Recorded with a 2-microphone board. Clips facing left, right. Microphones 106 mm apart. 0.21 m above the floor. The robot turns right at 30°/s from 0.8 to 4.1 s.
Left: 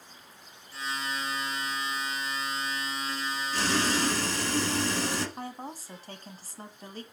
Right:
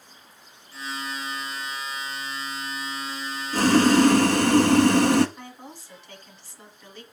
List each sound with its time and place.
3.5 s boiling: 50° right (ahead or behind), 0.8 m; by 5.3 s 60° right (ahead or behind), 0.8 m
5.4 s a woman speaking: 40° left (ahead or behind), 1.4 m